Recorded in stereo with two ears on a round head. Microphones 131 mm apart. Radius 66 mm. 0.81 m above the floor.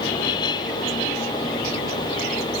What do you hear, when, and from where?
Only background noise.